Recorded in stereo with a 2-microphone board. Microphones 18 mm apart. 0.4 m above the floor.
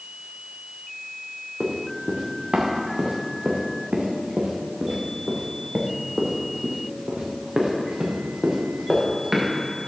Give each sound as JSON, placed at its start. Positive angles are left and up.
{"t": 1.6, "sound": "running footsteps", "side_deg": -65, "distance_m": 3.0}